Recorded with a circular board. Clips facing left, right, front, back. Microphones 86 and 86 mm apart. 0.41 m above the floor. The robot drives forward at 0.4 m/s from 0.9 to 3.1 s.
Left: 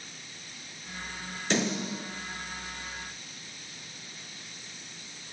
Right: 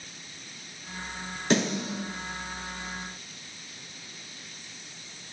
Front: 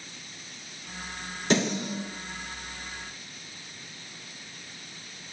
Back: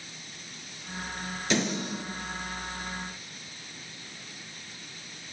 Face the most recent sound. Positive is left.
turn(degrees=-60)